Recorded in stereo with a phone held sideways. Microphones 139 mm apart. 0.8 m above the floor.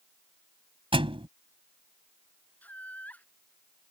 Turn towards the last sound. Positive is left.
turn(degrees=10)  # may be behind; listen again after turning